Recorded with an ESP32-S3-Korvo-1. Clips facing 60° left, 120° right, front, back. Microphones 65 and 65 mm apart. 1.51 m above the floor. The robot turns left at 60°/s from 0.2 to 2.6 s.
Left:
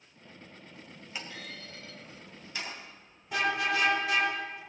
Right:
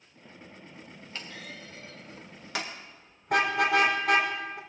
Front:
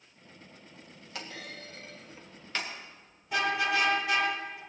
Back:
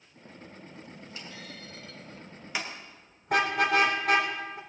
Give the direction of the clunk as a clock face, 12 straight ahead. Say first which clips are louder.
Even, front 5 dB; 1 o'clock.